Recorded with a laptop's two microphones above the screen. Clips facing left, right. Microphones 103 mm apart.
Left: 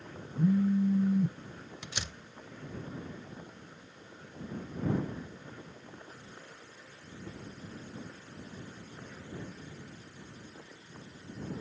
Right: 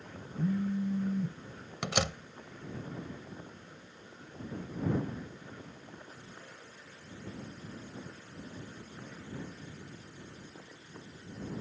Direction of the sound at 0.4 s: 15° left (ahead or behind).